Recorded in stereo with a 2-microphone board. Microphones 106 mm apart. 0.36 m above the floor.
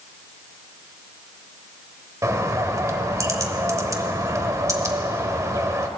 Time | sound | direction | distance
2.2 | a bird | 30° right (ahead or behind) | 1.1 m